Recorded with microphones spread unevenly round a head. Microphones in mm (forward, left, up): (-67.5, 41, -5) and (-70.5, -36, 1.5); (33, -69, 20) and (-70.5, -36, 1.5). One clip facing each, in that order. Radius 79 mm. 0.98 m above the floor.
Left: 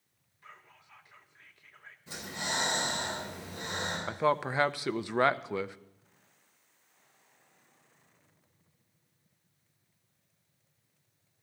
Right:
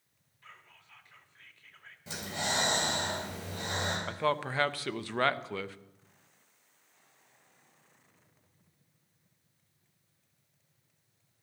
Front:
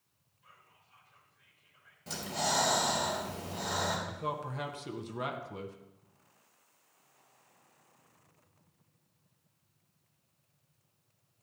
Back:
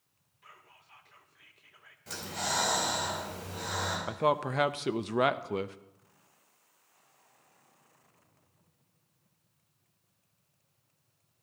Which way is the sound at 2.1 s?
75° right.